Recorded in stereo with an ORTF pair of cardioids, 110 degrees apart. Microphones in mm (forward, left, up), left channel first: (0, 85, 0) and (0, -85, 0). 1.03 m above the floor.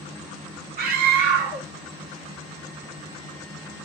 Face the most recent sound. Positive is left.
turn(degrees=-60)